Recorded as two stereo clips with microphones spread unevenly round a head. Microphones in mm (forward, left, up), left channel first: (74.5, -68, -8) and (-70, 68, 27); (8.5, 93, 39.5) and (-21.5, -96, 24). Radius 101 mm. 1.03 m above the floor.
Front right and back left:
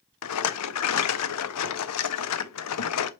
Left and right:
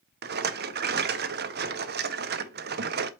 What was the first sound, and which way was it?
A rattle, 55° right.